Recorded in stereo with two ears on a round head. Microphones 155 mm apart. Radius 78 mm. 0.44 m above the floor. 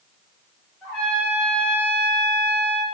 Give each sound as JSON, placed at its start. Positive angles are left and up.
{"t": 0.8, "sound": "a trumpet", "side_deg": 5, "distance_m": 1.9}